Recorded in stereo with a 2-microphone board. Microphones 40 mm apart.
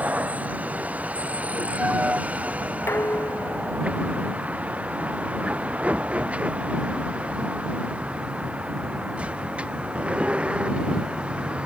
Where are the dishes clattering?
85° left.